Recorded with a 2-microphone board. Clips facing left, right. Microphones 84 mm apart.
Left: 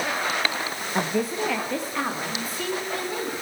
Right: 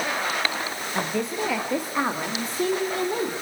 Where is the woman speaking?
20° left (ahead or behind), 1.3 m; by 3.3 s 35° right (ahead or behind), 4 m.